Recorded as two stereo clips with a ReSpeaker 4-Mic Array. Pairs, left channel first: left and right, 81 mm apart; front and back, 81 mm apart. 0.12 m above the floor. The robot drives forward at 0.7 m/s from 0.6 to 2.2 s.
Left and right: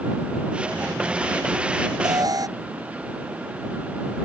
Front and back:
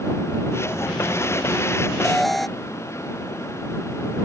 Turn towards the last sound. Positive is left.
turn(degrees=-90)